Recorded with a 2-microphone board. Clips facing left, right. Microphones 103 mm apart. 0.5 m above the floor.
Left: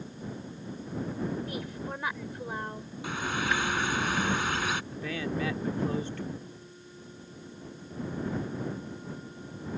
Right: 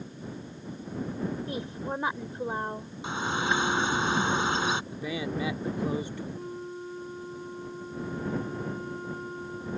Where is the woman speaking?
25° right (ahead or behind).